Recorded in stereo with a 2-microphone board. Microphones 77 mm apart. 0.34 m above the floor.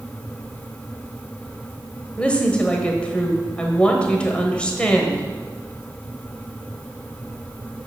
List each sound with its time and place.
2.2 s a woman speaking: 15° left (ahead or behind), 1.2 m